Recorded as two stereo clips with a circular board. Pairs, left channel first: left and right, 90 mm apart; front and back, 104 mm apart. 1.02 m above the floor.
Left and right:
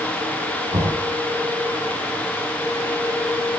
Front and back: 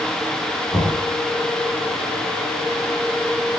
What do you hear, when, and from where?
0.7 s knocking: 65° right, 8.5 m